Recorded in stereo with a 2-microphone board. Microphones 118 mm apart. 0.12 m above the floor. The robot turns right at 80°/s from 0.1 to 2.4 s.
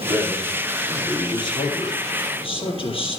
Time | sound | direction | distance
0.1 | a man speaking | 60° right | 4 m